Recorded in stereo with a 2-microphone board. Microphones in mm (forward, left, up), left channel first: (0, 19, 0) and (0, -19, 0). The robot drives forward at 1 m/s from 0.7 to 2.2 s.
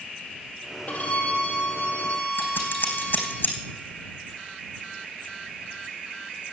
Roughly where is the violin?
Left.